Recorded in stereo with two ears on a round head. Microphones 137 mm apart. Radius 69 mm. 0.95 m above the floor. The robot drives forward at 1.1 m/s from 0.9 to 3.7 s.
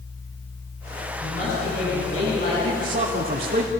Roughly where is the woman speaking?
Left.